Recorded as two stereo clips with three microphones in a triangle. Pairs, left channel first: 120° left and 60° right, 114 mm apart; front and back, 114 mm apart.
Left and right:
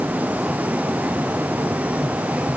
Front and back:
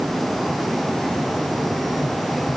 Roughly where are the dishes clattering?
No dishes clattering in this recording.